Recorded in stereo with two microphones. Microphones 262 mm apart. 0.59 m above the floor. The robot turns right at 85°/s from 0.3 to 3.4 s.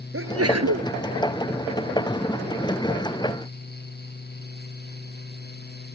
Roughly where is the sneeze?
Behind right.